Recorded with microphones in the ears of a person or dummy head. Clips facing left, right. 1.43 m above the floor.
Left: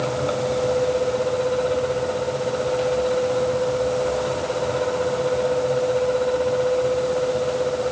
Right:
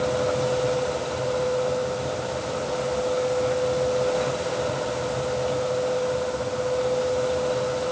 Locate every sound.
Only background noise.